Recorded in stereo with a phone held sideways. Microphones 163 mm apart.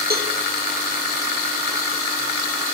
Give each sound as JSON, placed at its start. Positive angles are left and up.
{"t": 0.1, "sound": "a cowbell", "side_deg": -70, "distance_m": 2.0}